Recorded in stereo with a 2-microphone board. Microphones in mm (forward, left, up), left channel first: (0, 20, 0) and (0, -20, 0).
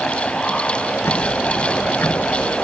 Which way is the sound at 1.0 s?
65° left (ahead or behind).